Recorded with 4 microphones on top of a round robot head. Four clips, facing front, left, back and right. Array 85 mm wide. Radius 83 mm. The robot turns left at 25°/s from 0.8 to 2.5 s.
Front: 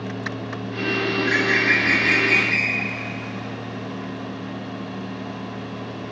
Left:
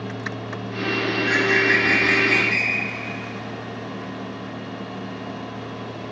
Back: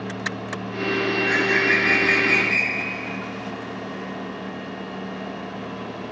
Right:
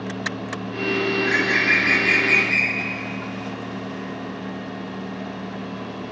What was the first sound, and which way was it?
A bird, 110° right.